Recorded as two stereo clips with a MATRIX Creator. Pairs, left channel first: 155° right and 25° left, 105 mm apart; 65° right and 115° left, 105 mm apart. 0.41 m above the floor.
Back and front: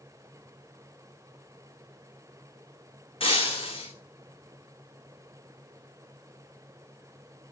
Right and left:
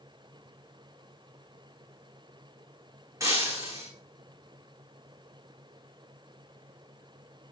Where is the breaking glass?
170° left, 10 m.